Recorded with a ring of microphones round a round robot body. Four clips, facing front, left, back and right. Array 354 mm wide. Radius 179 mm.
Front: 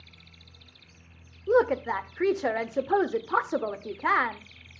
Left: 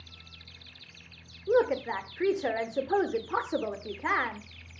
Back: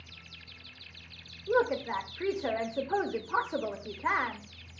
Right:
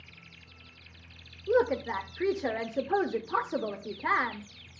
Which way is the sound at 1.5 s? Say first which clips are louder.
Left 1 dB, front 5 dB; 10° left.